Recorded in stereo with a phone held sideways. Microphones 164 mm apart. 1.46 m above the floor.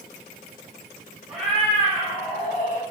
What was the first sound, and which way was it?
A cat meowing, 5° right (ahead or behind).